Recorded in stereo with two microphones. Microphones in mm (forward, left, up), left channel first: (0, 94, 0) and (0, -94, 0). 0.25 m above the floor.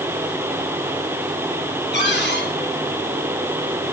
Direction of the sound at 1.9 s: 70° left (ahead or behind).